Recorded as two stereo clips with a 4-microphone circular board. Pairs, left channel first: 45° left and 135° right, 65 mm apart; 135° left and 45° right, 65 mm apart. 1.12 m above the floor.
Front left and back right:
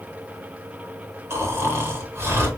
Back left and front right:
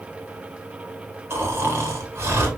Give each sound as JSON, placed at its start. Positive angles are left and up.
{"t": 1.3, "sound": "snoring", "azimuth_deg": -90, "distance_m": 1.3}